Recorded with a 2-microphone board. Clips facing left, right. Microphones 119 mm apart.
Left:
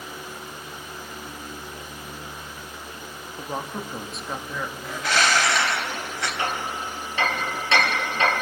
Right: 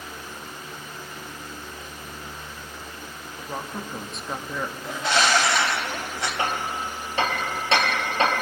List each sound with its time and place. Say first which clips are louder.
3.4 s a woman speaking: left 2 dB; 20° left (ahead or behind), 1.4 m; by 4.7 s 15° right (ahead or behind), 1.3 m
4.8 s a bird: right 1 dB; 25° right (ahead or behind), 3 m
6.4 s hammering: right 2 dB; 40° right (ahead or behind), 5 m